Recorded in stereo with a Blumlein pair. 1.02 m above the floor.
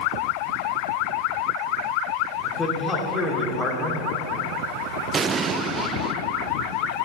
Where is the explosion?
20° right, 0.6 m.